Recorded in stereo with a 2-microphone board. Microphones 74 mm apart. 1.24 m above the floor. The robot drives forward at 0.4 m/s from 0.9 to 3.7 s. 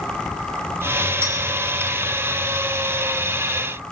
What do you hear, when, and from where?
1.2 s a clink: 40° right (ahead or behind), 5 m; by 1.3 s 35° right (ahead or behind), 5 m